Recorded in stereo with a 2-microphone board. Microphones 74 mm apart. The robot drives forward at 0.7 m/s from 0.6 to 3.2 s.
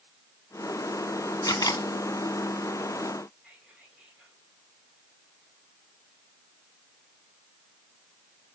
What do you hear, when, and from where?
1.4 s a camera shutter: 50° left (ahead or behind), 1.6 m; by 1.9 s 60° left (ahead or behind), 1.5 m
3.4 s whispering: 5° right (ahead or behind), 7.5 m